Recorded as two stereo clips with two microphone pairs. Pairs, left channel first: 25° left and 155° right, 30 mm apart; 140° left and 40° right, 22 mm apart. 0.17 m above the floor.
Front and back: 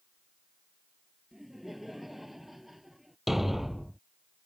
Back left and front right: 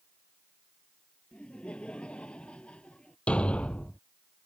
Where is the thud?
120° left.